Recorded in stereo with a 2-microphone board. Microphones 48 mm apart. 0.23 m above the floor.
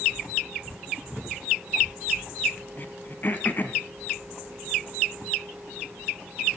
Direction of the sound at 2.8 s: 40° left (ahead or behind).